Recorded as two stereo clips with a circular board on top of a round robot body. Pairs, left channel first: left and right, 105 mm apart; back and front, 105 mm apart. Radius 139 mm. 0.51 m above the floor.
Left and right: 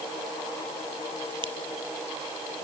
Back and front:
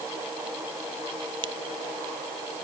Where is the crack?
45° right.